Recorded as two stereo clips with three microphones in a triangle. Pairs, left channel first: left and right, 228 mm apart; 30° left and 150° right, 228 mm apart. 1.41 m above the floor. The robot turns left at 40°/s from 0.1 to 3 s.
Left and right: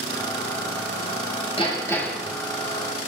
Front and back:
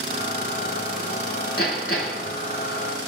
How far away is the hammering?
About 8 m.